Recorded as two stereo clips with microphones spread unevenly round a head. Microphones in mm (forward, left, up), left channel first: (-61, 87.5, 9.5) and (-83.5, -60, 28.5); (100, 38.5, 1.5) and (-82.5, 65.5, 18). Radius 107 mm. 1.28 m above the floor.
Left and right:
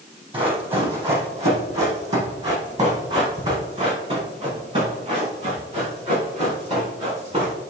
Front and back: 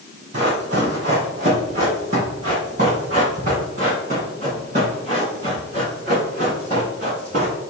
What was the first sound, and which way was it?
Running footsteps, 140° right.